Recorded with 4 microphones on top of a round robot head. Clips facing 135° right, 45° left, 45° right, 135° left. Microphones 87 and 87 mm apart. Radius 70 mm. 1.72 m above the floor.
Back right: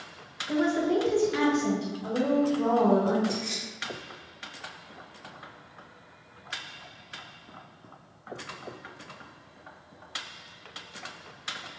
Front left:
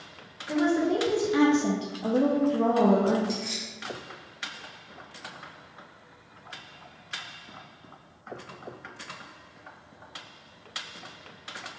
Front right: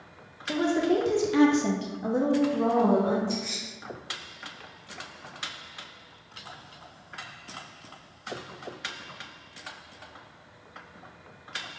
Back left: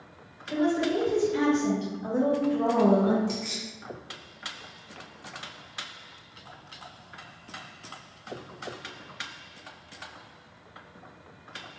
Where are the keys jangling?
120° left, 0.9 m.